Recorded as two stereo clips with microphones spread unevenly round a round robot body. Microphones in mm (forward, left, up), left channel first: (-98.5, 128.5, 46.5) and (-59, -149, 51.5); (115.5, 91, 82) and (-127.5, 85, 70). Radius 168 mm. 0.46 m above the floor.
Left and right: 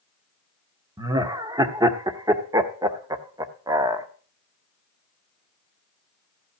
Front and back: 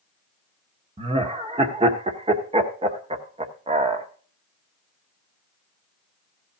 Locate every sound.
1.0 s laughter: 150° right, 1.0 m